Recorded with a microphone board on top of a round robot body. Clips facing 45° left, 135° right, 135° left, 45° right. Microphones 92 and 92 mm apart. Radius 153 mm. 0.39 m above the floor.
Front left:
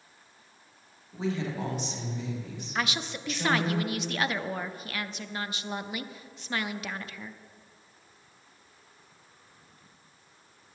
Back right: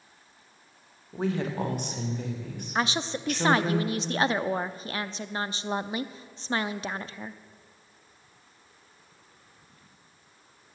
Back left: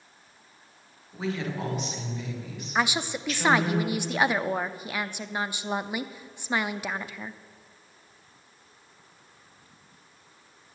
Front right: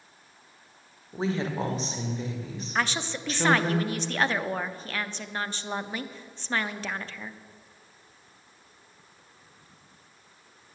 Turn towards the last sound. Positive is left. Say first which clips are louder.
# back right 4 dB, back left 2 dB
turn(degrees=-155)